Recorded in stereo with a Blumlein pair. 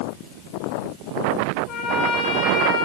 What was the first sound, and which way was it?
A trumpet, 35° left.